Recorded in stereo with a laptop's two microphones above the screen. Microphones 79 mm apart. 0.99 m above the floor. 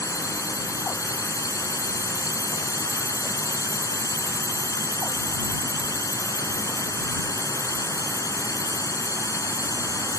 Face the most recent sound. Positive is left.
turn(degrees=50)  # may be behind; listen again after turning